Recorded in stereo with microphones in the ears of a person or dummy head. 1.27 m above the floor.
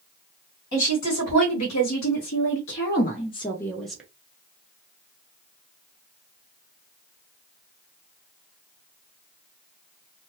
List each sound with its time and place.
0.7 s a woman speaking: 75° left (ahead or behind), 1.7 m; by 4.0 s 10° right (ahead or behind), 0.8 m